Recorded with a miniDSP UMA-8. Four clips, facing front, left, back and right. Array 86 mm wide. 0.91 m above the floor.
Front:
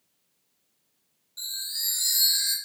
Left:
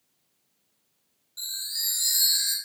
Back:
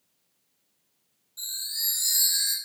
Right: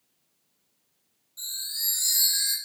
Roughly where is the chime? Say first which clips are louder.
Left 1 dB, front 1 dB; ahead left.